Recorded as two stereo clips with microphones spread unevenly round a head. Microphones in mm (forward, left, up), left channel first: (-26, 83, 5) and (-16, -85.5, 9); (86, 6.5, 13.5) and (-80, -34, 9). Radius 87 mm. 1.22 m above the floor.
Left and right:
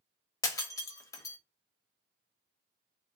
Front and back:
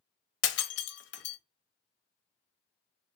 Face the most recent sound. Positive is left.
turn(degrees=20)